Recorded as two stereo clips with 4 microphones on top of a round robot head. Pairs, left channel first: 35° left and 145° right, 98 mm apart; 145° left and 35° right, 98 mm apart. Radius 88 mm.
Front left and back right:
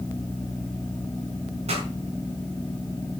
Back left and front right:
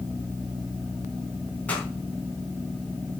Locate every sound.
1.7 s a pop: 140° right, 4 m